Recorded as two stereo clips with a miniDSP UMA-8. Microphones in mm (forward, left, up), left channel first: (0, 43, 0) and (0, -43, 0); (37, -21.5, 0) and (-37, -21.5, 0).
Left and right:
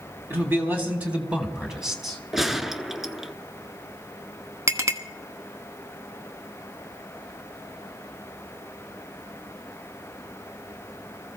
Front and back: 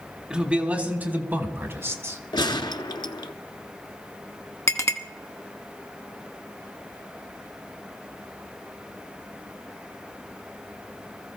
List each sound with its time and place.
0.3 s a man speaking: 115° right, 1.7 m; by 2.2 s 175° right, 1.9 m
2.3 s a gunshot: 5° right, 0.7 m
4.7 s a clink: 40° right, 1.0 m